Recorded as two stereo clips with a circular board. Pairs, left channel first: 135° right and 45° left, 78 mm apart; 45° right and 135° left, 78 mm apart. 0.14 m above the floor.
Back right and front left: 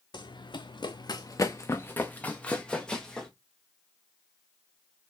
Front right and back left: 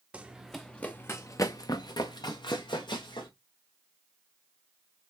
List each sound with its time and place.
0.1 s running footsteps: 150° right, 0.7 m; by 3.3 s 50° right, 1.4 m